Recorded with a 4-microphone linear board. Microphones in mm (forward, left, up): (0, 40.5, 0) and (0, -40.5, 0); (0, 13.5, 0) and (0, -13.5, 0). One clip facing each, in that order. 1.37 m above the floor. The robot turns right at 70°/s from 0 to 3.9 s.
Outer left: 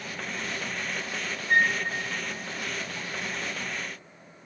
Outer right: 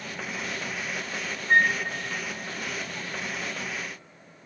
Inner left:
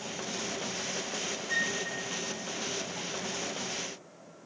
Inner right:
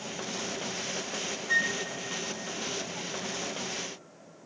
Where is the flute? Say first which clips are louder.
Outer right 2 dB, inner right 4 dB; 35° right (ahead or behind), 0.6 m; by 1.7 s 15° right (ahead or behind), 0.6 m.